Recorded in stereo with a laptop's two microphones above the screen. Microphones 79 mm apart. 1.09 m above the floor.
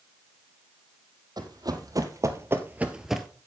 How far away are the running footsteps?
About 2.5 m.